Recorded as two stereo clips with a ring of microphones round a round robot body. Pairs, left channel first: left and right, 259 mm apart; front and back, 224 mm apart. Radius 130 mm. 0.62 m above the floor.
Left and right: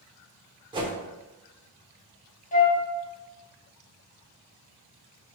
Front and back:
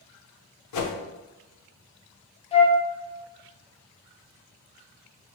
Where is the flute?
50° left, 0.9 m.